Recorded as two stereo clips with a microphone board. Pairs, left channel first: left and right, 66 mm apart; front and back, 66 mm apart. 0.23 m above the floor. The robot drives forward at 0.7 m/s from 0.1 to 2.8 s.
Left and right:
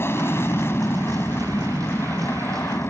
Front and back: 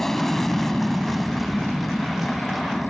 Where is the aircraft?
80° left; by 2.9 s 85° left.